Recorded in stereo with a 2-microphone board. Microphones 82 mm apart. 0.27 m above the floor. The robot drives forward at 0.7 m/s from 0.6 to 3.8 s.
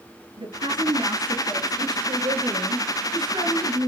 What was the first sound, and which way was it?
A woman speaking, 65° right (ahead or behind).